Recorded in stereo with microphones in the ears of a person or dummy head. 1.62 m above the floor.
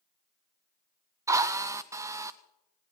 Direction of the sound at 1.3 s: 15° right (ahead or behind).